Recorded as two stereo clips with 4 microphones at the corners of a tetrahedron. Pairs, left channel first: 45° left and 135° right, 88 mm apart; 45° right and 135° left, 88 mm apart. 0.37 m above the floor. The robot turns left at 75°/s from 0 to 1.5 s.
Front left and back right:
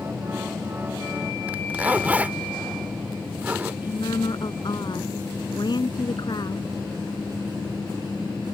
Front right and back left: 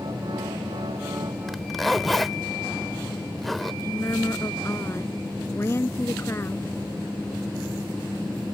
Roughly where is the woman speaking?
Ahead.